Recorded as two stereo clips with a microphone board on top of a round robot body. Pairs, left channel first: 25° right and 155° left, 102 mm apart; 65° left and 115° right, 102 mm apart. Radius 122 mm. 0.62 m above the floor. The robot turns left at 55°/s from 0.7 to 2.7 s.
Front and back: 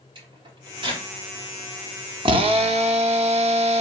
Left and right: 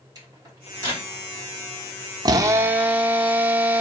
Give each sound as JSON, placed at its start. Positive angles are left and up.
{"t": 0.1, "sound": "a microwave", "azimuth_deg": -165, "distance_m": 2.5}
{"t": 2.2, "sound": "a drill", "azimuth_deg": -160, "distance_m": 0.8}